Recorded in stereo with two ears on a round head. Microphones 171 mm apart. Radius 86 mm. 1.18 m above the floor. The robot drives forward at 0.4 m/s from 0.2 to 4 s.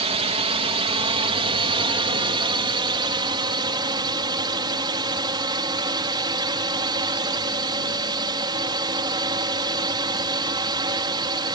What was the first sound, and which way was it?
A drone, 30° right (ahead or behind).